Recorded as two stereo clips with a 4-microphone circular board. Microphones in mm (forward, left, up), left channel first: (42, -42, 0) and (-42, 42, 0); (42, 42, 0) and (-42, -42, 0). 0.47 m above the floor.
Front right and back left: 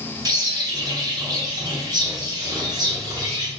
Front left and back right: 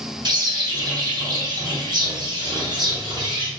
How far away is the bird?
About 0.6 m.